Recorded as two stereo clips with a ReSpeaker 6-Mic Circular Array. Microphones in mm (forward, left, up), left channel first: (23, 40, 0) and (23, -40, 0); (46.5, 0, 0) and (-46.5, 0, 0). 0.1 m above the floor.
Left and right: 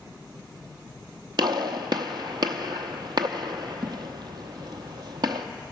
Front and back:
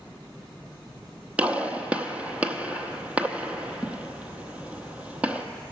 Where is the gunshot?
105° right, 0.6 m.